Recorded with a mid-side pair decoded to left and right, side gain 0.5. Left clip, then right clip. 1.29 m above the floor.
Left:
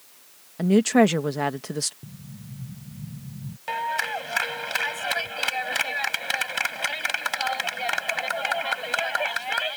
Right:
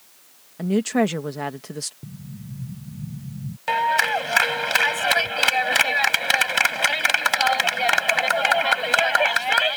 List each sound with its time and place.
0.6 s a woman speaking: 20° left
2.0 s an explosion: 25° right
3.7 s a clap: 45° right